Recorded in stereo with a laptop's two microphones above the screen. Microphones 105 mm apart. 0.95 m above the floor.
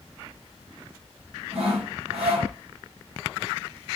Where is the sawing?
70° right (ahead or behind), 2.5 m.